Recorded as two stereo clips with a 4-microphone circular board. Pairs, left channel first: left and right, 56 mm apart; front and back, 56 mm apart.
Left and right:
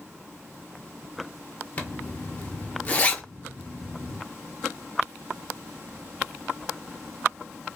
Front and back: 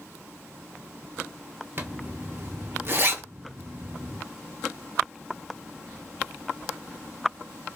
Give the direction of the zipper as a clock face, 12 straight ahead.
7 o'clock.